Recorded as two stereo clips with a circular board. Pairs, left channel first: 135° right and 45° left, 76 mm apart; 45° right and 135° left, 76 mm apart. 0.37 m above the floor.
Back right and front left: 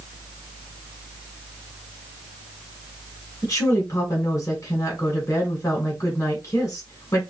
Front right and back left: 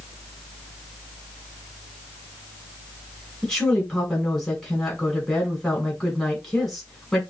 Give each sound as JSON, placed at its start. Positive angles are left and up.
{"t": 3.4, "sound": "a woman speaking", "azimuth_deg": -115, "distance_m": 1.6}